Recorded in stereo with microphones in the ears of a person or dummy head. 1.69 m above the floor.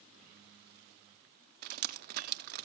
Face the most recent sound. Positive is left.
turn(degrees=-50)  # may be behind; listen again after turning